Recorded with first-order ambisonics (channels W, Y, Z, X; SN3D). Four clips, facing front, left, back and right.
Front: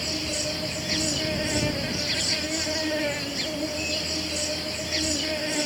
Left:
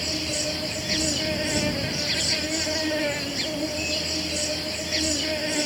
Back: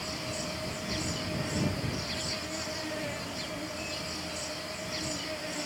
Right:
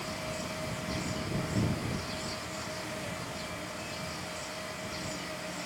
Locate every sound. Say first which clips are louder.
0.0 s an insect: left 10 dB, front 7 dB; 55° left